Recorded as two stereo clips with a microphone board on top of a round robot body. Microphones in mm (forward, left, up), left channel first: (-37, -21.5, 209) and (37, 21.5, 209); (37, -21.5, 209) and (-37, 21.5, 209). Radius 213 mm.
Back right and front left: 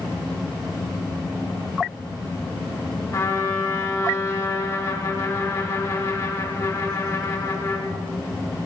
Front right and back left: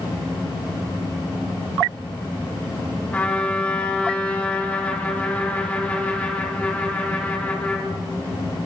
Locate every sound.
3.1 s a trumpet: 100° right, 3.5 m